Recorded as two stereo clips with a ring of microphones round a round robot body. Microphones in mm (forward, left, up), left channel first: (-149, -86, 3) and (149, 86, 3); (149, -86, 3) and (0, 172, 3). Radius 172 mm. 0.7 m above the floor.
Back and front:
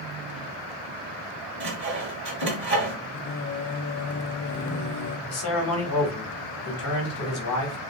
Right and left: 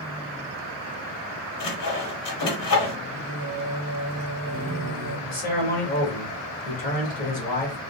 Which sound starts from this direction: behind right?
A man speaking, at 5.3 s.